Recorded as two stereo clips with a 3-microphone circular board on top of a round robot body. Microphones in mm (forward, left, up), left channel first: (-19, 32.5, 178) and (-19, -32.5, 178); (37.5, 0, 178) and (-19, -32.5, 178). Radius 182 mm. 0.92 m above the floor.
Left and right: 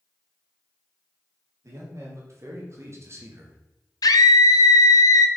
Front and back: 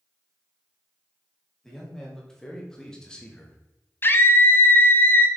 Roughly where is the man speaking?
Ahead right.